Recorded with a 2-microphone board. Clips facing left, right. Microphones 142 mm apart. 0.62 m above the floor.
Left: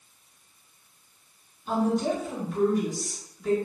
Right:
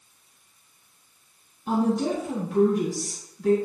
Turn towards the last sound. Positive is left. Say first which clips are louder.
# right 2 dB
turn(degrees=-75)  # may be behind; listen again after turning